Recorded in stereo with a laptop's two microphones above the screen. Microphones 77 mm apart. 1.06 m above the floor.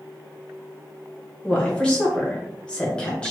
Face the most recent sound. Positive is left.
turn(degrees=15)  # may be behind; listen again after turning